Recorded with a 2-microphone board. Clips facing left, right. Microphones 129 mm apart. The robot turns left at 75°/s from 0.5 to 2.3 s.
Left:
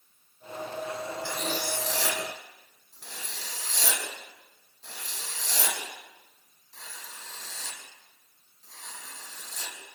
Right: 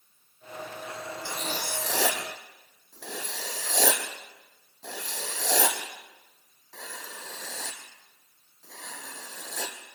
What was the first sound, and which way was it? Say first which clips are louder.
Writing: left 1 dB; 15° right (ahead or behind).